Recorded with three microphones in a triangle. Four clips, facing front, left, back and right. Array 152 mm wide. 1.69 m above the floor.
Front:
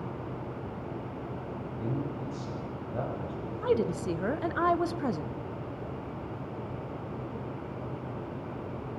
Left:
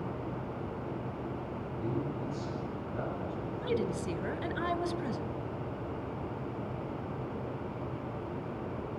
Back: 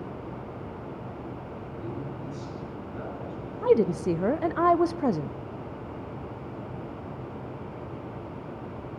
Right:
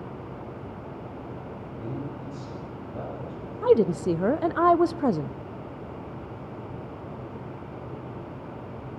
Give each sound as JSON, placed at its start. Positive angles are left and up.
{"t": 1.8, "sound": "a man speaking", "azimuth_deg": -15, "distance_m": 9.0}
{"t": 3.6, "sound": "a woman speaking", "azimuth_deg": -125, "distance_m": 0.5}